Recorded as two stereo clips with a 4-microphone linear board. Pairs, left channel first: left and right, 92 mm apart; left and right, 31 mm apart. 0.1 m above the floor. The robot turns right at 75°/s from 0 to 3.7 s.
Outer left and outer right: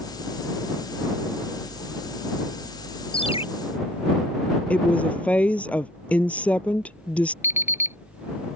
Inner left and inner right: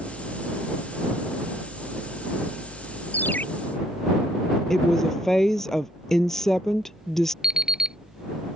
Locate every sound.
3.1 s a ringtone: 75° left (ahead or behind); by 3.5 s 80° left
4.7 s a woman speaking: 15° left (ahead or behind)
7.4 s an alarm clock: 30° right (ahead or behind)